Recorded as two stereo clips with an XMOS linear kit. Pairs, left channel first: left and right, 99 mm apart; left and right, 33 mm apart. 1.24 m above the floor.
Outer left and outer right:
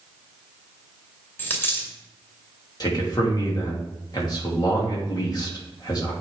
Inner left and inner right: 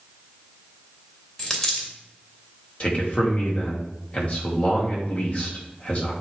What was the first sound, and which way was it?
A dropped coin, 20° left (ahead or behind).